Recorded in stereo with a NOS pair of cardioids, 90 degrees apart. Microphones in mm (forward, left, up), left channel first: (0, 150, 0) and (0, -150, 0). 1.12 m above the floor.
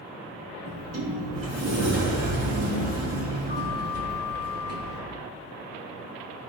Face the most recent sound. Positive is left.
turn(degrees=-55)